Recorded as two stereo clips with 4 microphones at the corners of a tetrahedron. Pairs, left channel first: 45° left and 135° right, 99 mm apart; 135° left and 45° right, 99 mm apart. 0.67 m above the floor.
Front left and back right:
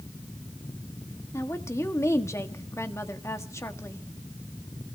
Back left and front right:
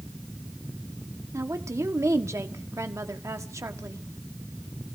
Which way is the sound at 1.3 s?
Straight ahead.